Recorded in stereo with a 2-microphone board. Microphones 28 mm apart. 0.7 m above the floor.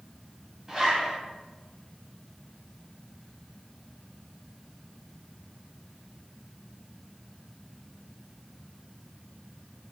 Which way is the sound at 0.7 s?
15° right (ahead or behind).